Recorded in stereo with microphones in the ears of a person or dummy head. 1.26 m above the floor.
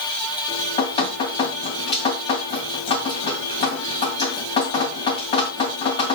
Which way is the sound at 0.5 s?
30° left (ahead or behind).